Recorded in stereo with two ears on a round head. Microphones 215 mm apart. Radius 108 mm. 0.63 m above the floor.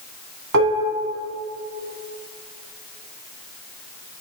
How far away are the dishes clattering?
About 3.5 m.